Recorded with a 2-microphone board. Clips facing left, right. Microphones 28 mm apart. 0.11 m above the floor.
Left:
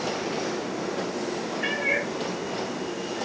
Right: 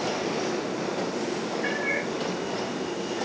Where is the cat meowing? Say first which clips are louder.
Left 4 dB; 65° left (ahead or behind), 0.9 m.